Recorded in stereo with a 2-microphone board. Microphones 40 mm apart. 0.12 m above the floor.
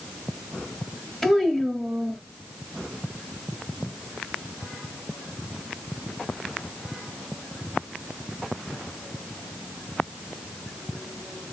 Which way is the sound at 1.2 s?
5° left (ahead or behind).